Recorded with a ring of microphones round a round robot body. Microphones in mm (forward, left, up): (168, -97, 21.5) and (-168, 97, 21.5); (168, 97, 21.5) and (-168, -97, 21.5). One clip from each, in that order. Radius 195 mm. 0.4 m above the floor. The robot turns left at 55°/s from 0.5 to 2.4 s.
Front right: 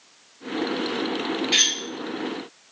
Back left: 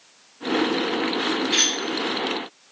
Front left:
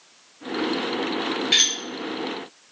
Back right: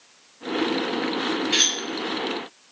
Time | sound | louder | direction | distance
1.5 | cutlery clinking | front right 2 dB, front left 2 dB | 55° left | 1.2 m